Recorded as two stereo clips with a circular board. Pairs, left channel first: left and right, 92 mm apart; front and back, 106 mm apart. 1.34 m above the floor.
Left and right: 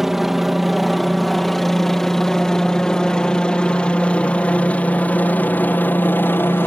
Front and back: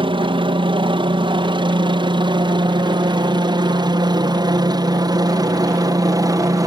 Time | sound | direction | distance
0.0 | a helicopter | 175° right | ?